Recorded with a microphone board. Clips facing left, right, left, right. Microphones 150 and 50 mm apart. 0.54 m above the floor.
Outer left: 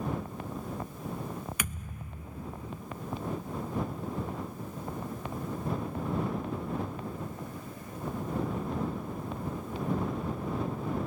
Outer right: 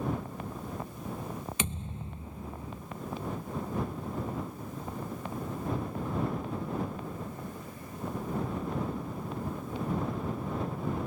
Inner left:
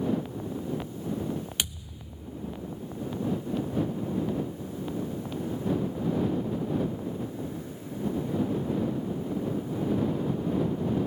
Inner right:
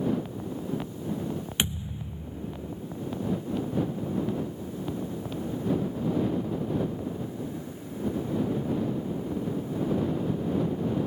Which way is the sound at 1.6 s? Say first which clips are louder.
Outer right 3 dB, inner right 4 dB; 25° right (ahead or behind).